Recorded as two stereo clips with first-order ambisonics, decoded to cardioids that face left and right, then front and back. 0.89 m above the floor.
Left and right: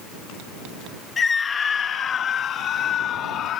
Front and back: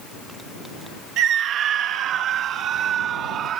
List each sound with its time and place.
1.2 s a scream: 155° left; by 3.6 s 135° left